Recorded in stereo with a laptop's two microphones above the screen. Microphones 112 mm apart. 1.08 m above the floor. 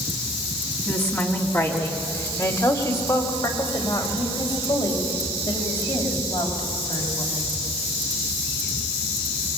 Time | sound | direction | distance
0.9 | a woman speaking | 20° left (ahead or behind) | 2 m